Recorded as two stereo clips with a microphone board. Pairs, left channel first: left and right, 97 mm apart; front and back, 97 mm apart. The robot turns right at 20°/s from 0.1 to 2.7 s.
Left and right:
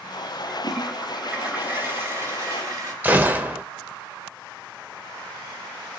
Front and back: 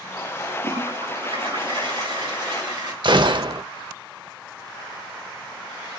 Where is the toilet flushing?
Straight behind, 3 m; by 2.9 s 140° right, 3 m.